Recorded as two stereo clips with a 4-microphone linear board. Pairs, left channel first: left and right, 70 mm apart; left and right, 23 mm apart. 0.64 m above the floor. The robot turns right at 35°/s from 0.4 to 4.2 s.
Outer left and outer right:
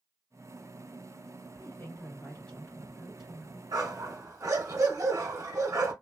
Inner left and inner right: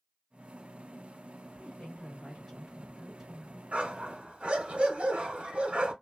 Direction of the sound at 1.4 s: 130° left.